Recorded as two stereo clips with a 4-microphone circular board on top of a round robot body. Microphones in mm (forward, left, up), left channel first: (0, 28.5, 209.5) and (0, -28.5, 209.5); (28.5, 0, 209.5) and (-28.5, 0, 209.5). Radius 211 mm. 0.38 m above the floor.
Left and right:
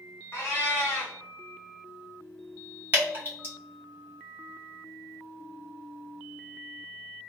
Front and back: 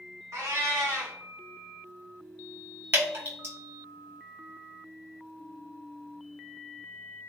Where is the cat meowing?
145° left, 0.6 m.